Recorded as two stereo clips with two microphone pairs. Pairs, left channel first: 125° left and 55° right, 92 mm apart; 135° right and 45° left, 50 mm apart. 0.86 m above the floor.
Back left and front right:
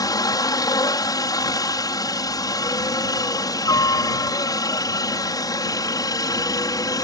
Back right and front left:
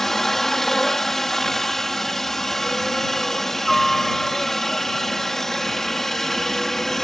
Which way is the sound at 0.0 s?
145° left.